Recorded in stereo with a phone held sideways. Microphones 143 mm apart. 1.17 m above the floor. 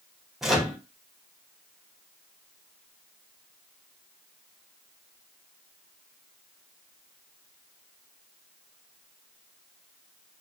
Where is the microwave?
Centre (ahead or behind), 0.7 m.